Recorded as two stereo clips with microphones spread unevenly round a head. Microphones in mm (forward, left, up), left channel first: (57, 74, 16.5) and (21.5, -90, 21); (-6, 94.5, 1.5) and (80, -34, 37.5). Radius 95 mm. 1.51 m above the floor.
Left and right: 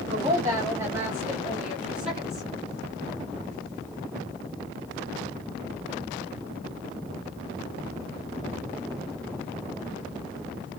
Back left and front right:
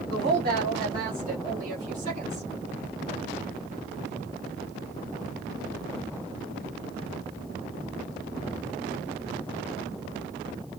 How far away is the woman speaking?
About 2.5 m.